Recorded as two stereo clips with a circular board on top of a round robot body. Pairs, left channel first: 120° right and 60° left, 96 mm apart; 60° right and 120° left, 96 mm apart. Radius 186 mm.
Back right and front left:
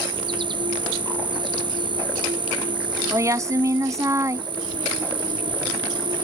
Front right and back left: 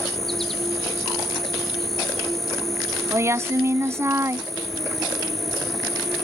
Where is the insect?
25° left.